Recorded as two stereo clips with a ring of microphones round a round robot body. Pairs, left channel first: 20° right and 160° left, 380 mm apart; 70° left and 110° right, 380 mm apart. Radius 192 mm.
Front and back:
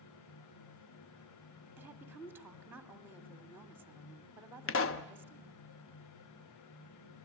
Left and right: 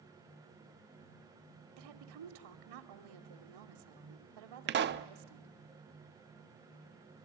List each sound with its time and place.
1.8 s a woman speaking: 120° right, 1.7 m
4.7 s a pop: 60° right, 0.7 m